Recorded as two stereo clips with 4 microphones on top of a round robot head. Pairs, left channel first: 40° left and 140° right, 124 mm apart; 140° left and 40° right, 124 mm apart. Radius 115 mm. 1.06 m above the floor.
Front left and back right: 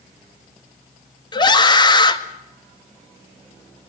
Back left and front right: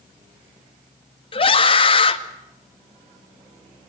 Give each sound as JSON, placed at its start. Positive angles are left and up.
{"t": 1.3, "sound": "a scream", "azimuth_deg": 95, "distance_m": 2.0}